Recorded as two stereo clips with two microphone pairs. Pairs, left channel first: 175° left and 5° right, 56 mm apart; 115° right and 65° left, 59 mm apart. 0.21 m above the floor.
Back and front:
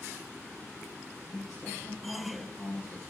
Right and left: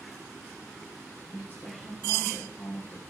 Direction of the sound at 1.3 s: 165° right.